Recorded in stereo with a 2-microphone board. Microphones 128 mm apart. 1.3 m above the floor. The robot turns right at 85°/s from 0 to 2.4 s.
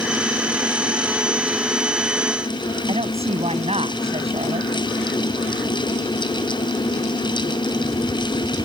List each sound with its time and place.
2.9 s a woman speaking: 55° right (ahead or behind)